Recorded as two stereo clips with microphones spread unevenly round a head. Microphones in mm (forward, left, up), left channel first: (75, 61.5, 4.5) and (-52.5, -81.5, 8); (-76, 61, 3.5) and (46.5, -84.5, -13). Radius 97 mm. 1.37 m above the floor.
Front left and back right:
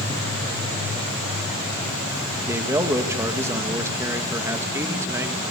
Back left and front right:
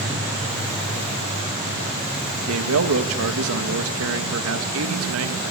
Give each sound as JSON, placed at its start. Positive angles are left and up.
{"t": 2.4, "sound": "a man speaking", "azimuth_deg": -55, "distance_m": 2.0}